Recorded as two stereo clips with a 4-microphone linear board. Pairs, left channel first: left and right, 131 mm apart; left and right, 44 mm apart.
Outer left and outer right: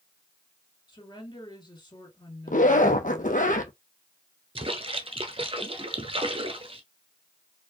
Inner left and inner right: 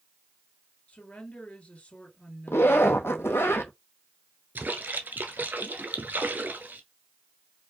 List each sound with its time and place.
0.9 s a woman speaking: 35° left (ahead or behind), 2.5 m
2.5 s a zipper: 80° left, 0.8 m
4.5 s a splash: 45° right (ahead or behind), 0.7 m